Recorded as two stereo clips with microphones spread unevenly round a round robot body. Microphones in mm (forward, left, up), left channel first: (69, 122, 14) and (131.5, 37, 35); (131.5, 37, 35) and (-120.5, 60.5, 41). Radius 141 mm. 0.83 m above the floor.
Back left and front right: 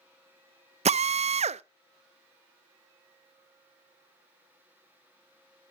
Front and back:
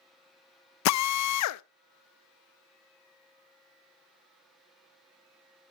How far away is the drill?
About 0.5 m.